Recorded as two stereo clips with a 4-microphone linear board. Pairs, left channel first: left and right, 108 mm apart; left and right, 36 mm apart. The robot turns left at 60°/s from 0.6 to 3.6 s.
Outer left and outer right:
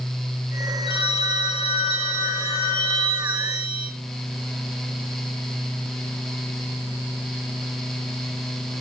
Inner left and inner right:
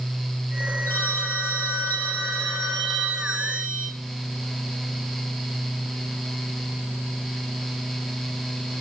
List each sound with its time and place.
0.9 s a phone ringing: 125° left, 2 m; by 3.9 s 40° right, 2 m